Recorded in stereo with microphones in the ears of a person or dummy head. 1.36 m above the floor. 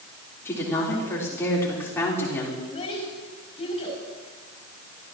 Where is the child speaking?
35° left (ahead or behind), 7 m.